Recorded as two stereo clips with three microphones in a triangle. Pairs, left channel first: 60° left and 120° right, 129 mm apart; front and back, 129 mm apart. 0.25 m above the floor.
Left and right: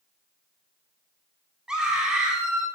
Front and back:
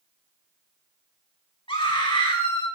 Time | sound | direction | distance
1.7 | a scream | 35° right | 2.5 m